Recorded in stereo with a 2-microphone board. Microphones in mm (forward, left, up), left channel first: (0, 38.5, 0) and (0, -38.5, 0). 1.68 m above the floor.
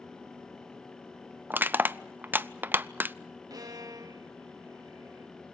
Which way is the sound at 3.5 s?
50° right (ahead or behind).